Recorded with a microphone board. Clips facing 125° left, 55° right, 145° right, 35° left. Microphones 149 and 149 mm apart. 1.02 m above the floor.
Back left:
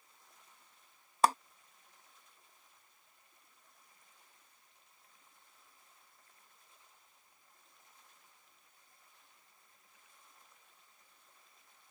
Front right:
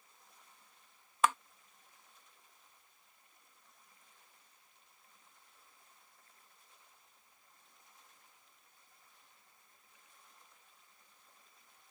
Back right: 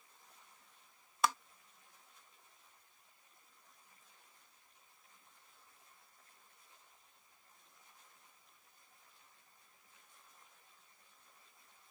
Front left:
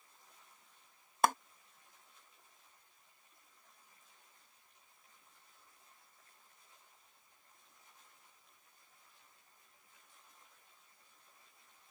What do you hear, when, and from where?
1.2 s a clap: 70° left